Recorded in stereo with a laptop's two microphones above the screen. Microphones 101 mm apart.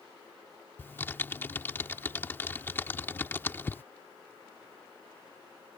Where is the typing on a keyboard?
20° left (ahead or behind).